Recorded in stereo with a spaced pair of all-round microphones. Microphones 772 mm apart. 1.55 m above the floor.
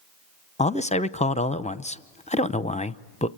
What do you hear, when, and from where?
0.6 s a man speaking: 10° left (ahead or behind), 0.6 m